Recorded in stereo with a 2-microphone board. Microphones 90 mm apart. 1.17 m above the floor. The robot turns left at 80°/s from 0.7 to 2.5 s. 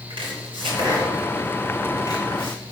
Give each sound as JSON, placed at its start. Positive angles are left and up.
{"t": 0.1, "sound": "chopping", "side_deg": -70, "distance_m": 2.5}